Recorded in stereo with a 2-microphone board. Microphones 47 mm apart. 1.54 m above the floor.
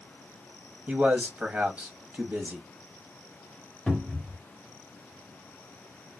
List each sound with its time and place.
0.9 s a man speaking: 40° right (ahead or behind), 1.0 m
3.9 s a cupboard door: 5° left (ahead or behind), 1.3 m